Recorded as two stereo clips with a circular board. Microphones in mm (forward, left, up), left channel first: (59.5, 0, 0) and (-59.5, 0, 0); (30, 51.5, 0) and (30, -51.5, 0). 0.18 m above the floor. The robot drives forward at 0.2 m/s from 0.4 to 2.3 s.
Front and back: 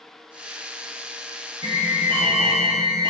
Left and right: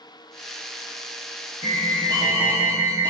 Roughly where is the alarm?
Behind right.